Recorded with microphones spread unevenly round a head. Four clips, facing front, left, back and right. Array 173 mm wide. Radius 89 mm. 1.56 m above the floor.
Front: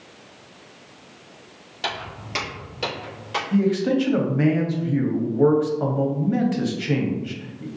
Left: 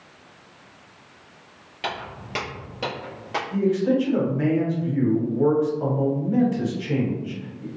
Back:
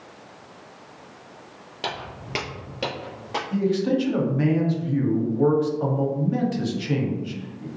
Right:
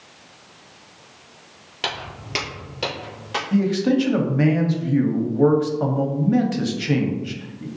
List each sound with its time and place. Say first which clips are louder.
1.8 s footsteps: even, front 1 dB; 130° right, 1.6 m; by 3.4 s 135° left, 1.9 m
3.5 s a man speaking: right 2 dB, front 2 dB; 55° right, 0.8 m